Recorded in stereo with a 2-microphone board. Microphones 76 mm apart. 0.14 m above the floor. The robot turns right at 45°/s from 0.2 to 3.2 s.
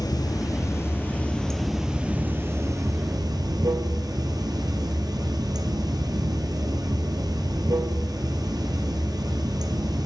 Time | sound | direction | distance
0.0 | running water | 115° left | 1.0 m